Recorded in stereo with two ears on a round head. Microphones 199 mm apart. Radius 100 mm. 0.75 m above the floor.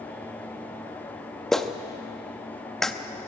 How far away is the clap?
About 0.7 m.